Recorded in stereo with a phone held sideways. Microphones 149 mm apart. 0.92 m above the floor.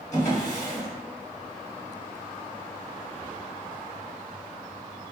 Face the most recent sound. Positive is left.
turn(degrees=25)  # may be behind; listen again after turning